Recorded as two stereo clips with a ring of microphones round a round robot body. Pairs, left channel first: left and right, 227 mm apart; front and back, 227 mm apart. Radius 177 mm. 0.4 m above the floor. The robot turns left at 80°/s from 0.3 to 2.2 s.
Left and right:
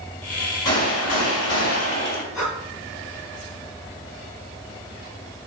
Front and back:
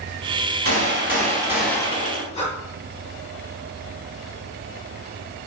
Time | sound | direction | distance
0.7 | a gunshot | 170° left | 4 m
2.3 | breathing | 65° left | 4.5 m